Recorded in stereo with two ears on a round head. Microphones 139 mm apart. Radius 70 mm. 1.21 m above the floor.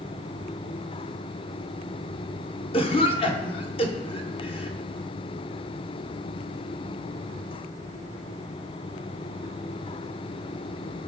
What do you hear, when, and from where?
2.7 s a cough: 35° left (ahead or behind), 0.9 m